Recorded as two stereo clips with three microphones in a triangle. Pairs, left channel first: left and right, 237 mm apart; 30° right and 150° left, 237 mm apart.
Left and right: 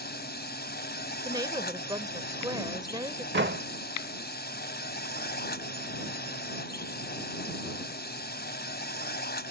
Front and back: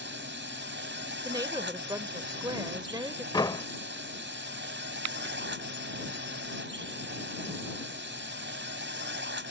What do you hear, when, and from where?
0.0 s a drone: 125° left
1.2 s a woman speaking: 150° right
3.3 s a door slam: 100° right